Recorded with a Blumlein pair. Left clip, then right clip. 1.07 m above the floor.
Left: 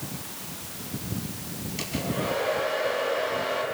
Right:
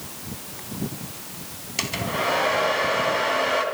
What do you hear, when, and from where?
1.8 s a hair dryer: 25° right, 3 m